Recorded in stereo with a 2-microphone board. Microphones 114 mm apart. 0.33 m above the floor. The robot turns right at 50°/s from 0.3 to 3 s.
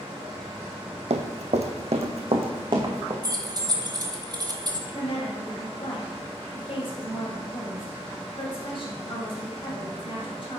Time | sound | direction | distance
1.1 | running footsteps | 70° right (ahead or behind) | 0.8 m
3.2 | keys jangling | 35° right (ahead or behind) | 0.8 m
4.9 | a woman speaking | 50° left (ahead or behind) | 2 m